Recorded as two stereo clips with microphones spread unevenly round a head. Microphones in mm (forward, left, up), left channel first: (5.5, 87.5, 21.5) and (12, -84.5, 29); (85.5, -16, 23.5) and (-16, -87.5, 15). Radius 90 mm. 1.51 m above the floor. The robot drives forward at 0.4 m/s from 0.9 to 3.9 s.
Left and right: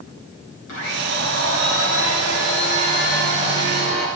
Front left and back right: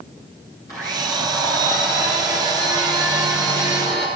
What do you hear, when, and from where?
0.7 s a blender: 110° left, 8 m; by 4.1 s 115° left, 8.5 m